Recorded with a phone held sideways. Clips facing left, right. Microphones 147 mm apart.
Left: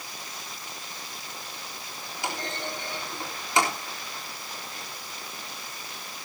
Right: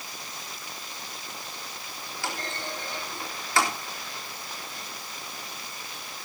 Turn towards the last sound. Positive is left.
turn(degrees=20)  # may be behind; listen again after turning